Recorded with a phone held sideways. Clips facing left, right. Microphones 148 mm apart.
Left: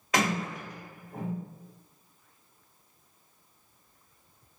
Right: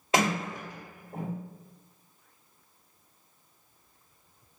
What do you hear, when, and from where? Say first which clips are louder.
0.1 s a sliding door: right 2 dB; 25° right (ahead or behind), 1.4 m